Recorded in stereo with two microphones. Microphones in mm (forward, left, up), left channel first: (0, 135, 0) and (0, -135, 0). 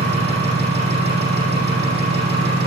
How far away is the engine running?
About 6 m.